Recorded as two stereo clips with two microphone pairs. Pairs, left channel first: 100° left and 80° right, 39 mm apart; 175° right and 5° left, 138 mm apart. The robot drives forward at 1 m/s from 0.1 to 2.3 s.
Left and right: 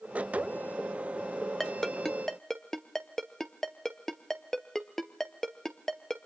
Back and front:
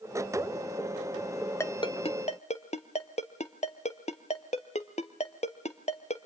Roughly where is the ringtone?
Behind.